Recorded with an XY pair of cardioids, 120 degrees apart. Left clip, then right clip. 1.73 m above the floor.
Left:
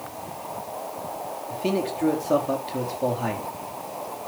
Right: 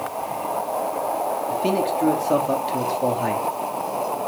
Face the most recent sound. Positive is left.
turn(degrees=-5)